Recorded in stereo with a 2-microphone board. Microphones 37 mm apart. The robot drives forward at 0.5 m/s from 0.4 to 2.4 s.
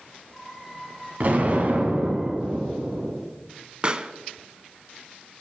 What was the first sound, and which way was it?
An explosion, 50° right (ahead or behind).